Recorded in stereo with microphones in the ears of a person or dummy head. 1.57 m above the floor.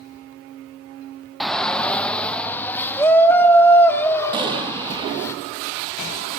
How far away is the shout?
About 1.0 m.